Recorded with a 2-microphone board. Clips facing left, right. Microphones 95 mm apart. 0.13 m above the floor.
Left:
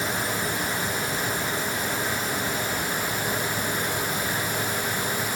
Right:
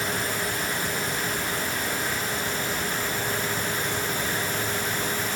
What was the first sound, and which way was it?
Only background noise.